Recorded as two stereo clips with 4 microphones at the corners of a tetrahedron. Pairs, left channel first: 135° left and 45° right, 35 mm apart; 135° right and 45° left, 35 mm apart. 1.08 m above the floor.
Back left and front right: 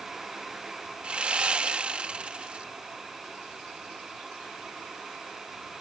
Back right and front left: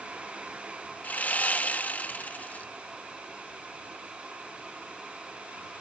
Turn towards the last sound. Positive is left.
turn(degrees=-100)